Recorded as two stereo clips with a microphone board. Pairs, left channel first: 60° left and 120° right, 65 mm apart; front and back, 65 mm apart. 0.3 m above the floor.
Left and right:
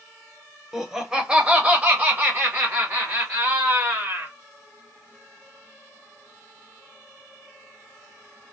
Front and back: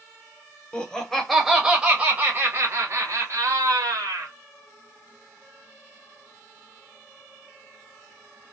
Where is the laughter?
45° right, 1.0 m; by 4.3 s 165° right, 1.9 m.